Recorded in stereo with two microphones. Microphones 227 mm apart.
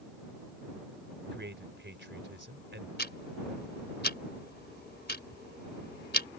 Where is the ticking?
45° left (ahead or behind).